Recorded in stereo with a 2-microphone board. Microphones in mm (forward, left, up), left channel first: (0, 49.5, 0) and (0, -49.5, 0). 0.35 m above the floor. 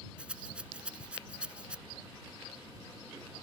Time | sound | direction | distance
0.2 | a rattle | 10° right (ahead or behind) | ?